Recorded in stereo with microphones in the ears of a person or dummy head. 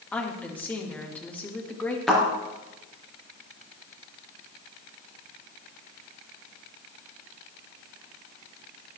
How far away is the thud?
About 4 m.